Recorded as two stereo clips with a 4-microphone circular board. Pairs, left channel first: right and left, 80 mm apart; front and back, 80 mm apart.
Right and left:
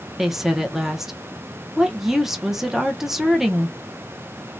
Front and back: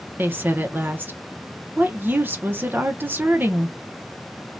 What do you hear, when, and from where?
0.2 s a woman speaking: 170° left, 0.7 m